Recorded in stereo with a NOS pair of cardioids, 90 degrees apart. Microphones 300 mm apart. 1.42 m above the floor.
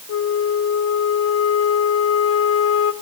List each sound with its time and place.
0.1 s a flute: 50° left, 1.0 m